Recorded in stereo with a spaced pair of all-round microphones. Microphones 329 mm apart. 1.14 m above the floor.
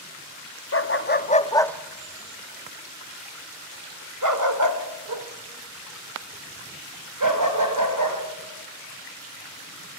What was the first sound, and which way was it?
A dog barking, 40° left (ahead or behind).